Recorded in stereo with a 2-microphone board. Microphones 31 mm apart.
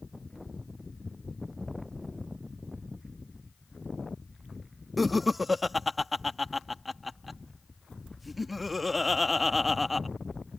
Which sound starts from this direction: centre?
Laughter, at 5.0 s.